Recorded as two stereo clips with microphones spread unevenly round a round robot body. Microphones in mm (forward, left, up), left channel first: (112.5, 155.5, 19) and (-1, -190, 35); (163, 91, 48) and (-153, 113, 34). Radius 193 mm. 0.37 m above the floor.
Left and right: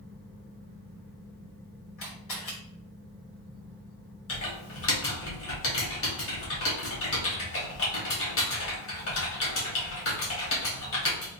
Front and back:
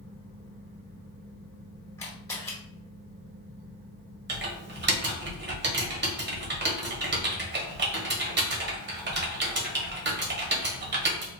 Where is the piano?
I don't hear a piano.